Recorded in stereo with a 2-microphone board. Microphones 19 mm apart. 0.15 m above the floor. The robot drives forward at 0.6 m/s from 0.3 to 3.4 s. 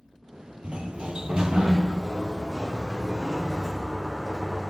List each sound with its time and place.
0.6 s a sliding door: 60° right (ahead or behind), 1.1 m; by 4.7 s 25° right (ahead or behind), 2.5 m